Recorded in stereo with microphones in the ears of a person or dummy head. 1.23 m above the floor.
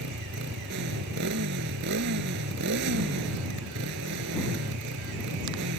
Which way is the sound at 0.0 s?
60° right (ahead or behind).